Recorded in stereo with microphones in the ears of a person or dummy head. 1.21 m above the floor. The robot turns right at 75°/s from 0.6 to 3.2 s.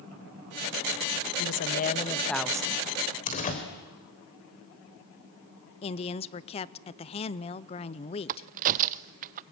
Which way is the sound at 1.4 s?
105° left.